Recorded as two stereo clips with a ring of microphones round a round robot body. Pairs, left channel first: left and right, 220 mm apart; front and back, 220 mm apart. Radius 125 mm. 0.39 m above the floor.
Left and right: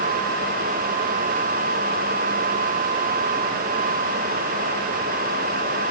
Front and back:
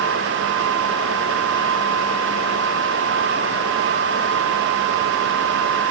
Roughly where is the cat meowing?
No cat meowing in this recording.